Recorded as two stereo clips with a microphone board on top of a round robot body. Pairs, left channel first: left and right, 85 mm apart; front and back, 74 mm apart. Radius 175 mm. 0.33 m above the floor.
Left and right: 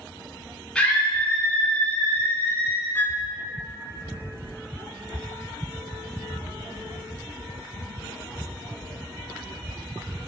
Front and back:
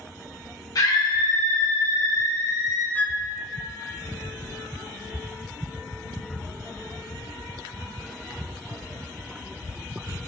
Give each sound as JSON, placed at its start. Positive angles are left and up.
{"t": 0.8, "sound": "a scream", "azimuth_deg": 10, "distance_m": 2.0}
{"t": 3.0, "sound": "a flute", "azimuth_deg": 45, "distance_m": 0.8}